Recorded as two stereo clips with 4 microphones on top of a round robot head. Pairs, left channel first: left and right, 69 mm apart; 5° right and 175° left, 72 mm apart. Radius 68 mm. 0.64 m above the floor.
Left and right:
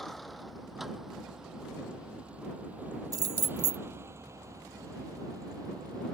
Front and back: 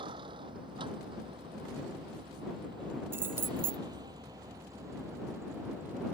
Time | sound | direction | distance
0.0 | a vehicle | straight behind | ?
3.1 | keys jangling | 120° right | ?